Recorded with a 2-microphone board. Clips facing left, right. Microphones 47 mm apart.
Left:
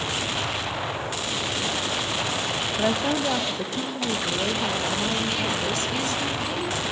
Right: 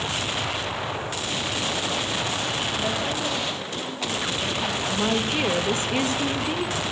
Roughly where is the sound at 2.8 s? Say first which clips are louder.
Left 3 dB; left.